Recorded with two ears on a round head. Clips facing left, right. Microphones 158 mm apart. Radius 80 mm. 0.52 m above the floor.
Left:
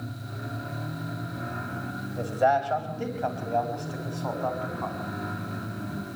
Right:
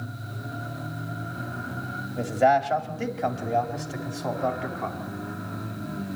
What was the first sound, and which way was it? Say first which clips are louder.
A man speaking: right 3 dB; 20° right (ahead or behind).